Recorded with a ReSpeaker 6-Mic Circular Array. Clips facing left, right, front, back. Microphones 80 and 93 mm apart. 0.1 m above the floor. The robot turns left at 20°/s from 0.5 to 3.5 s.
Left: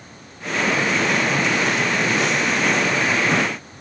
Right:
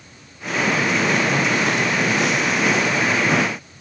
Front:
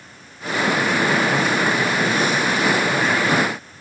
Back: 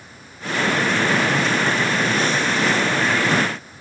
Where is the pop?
No pop in this recording.